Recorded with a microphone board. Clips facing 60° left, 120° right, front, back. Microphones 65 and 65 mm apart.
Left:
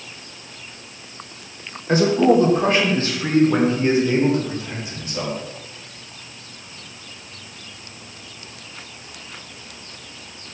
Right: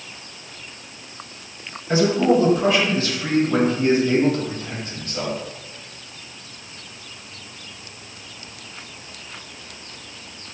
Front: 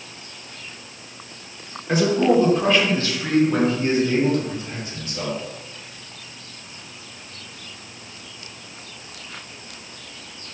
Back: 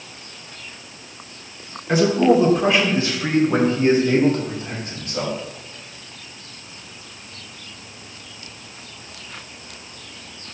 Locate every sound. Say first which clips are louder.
1.9 s a man speaking: left 2 dB, back 2 dB; 90° left, 2.5 m; by 5.4 s 135° left, 3.5 m